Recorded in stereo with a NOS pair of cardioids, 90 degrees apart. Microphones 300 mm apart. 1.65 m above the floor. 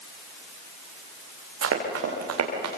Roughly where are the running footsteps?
Ahead right.